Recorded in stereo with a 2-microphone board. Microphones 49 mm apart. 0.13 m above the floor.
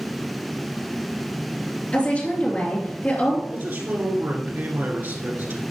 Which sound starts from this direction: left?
A woman speaking, at 1.9 s.